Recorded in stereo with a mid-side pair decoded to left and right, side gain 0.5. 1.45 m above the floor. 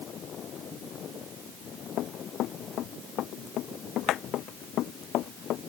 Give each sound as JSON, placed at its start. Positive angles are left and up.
{"t": 2.0, "sound": "running footsteps", "azimuth_deg": 70}